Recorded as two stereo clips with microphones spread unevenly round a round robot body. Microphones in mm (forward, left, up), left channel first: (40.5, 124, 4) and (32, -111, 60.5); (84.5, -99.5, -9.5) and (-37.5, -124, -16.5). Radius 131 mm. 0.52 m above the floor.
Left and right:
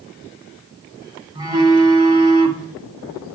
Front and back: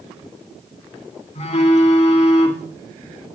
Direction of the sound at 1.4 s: 20° right.